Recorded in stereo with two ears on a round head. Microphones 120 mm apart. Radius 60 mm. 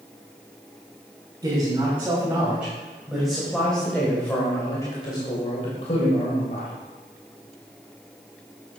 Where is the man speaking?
25° right (ahead or behind), 4 m; by 6.7 s 60° left (ahead or behind), 3 m.